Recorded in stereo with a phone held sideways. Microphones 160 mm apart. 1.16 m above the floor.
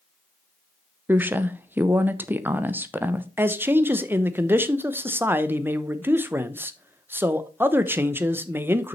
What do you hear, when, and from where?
1.1 s a woman speaking: 15° right (ahead or behind), 0.7 m
3.4 s a man speaking: 15° right (ahead or behind), 0.7 m